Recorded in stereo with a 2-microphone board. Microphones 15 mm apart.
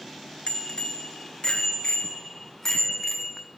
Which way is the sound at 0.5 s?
70° left (ahead or behind).